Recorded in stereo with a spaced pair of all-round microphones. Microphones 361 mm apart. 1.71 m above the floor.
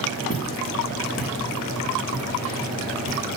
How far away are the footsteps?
About 10 m.